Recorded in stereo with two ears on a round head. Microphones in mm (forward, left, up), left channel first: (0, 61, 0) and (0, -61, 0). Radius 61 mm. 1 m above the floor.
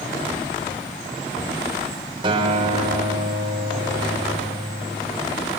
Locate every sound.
2.2 s a guitar: 40° right (ahead or behind), 3 m